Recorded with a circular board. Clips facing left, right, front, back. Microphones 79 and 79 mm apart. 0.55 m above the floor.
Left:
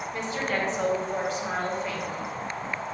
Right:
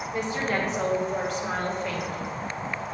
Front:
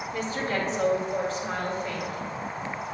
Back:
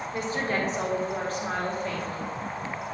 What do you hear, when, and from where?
0.1 s a woman speaking: 145° right, 1.5 m; by 2.3 s 165° left, 2 m